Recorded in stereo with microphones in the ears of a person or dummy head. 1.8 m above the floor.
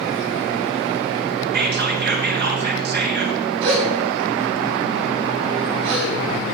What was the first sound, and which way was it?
Whispering, 55° right (ahead or behind).